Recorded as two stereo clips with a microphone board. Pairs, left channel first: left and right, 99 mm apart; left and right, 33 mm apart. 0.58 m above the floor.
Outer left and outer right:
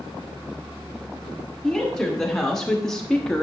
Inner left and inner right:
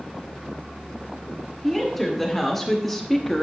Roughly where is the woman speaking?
Centre.